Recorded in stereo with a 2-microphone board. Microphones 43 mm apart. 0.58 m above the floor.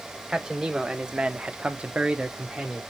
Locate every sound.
0.3 s a man speaking: 10° right (ahead or behind), 1.4 m